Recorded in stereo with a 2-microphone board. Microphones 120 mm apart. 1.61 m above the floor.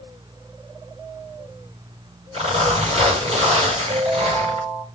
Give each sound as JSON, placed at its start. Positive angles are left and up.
{"t": 2.3, "sound": "a zipper", "side_deg": -60, "distance_m": 6.0}
{"t": 3.9, "sound": "a ringtone", "side_deg": -70, "distance_m": 5.5}